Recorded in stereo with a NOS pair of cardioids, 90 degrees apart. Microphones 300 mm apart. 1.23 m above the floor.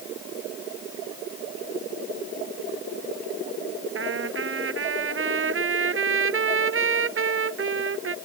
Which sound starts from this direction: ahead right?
A trumpet, at 4.0 s.